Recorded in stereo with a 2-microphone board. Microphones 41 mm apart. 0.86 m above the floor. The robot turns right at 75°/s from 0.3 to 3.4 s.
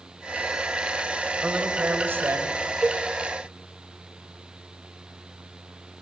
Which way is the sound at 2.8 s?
30° right (ahead or behind).